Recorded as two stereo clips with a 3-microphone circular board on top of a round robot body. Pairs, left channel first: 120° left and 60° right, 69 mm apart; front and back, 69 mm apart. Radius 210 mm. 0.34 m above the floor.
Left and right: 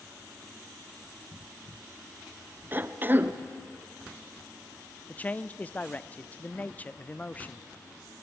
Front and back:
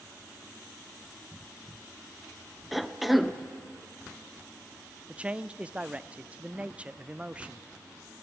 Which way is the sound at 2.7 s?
95° right.